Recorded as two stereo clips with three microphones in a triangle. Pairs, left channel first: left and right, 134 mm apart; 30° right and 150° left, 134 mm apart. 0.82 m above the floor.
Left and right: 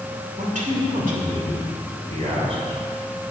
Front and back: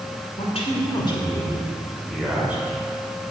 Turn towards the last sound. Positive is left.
turn(degrees=-135)